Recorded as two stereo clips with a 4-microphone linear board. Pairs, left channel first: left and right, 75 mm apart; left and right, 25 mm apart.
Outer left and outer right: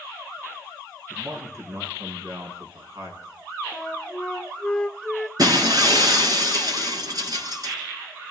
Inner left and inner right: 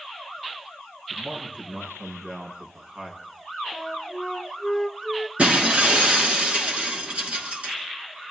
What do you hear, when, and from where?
1.1 s a man speaking: 40° right (ahead or behind), 5.5 m
3.7 s a flute: 10° left (ahead or behind), 0.7 m
5.4 s breaking glass: 60° right (ahead or behind), 4.5 m